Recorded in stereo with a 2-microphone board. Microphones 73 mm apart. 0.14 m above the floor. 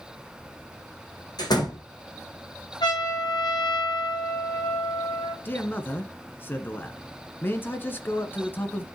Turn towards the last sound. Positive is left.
turn(degrees=30)  # may be behind; listen again after turning